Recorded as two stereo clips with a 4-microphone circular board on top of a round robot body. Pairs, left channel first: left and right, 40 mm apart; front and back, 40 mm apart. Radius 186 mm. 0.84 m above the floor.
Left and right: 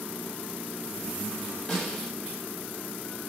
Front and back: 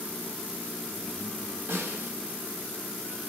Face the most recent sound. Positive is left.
turn(degrees=165)